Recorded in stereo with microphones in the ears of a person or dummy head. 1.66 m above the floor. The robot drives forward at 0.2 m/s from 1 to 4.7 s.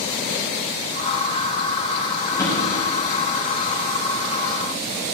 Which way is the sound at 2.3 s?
20° left (ahead or behind).